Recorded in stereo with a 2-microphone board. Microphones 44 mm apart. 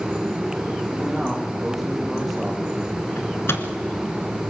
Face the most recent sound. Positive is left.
turn(degrees=65)  # may be behind; listen again after turning